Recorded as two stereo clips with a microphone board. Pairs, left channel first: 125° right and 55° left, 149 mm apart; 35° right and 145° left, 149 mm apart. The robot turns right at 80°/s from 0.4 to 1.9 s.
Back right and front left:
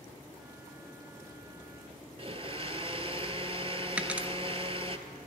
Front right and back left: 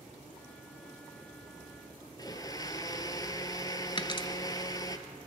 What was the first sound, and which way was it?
A blender, 20° left.